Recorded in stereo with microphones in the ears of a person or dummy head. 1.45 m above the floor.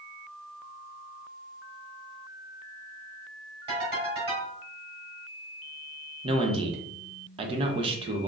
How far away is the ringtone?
About 2 m.